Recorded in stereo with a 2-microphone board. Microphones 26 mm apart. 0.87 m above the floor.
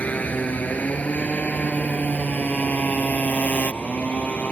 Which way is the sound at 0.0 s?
85° left.